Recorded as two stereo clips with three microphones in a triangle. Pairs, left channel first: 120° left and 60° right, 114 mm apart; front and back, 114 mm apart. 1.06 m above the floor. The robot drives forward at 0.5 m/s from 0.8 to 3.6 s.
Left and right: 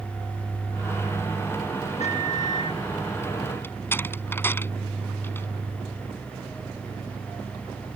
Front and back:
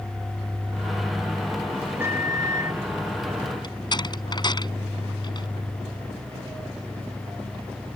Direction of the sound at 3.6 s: 50° left.